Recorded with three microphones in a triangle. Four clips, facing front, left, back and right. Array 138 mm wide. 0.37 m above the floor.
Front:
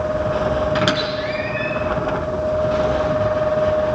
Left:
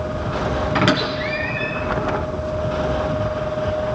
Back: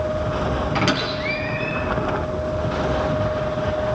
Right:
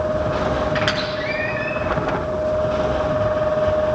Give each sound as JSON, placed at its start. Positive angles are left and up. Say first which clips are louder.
{"t": 0.8, "sound": "a squeak", "louder": "left 3 dB, front 2 dB", "azimuth_deg": 75, "distance_m": 3.5}